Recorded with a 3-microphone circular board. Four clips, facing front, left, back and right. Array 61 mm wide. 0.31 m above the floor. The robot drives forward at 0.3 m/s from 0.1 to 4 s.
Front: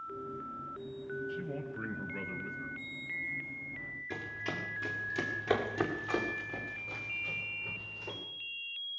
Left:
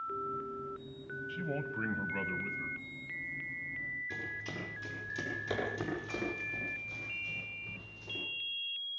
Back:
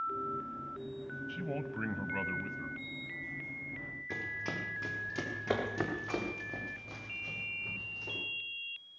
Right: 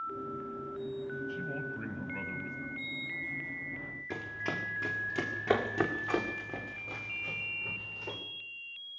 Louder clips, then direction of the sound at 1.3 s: Even, back 1 dB; 155° left.